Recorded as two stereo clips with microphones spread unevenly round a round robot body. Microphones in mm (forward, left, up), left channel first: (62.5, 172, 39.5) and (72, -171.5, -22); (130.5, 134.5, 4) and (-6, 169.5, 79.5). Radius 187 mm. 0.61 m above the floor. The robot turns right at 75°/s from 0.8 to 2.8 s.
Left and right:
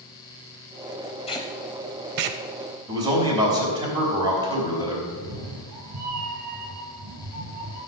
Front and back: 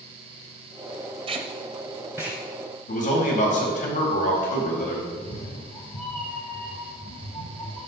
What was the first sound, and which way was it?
Tape being pulled, 155° left.